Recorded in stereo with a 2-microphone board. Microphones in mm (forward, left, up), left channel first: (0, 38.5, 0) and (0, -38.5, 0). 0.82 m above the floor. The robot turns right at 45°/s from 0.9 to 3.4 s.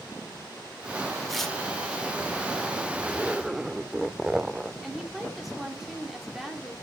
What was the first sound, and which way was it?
Tearing paper, 5° right (ahead or behind).